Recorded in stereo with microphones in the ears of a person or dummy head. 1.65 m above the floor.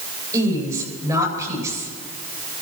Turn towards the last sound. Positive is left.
turn(degrees=-20)  # may be behind; listen again after turning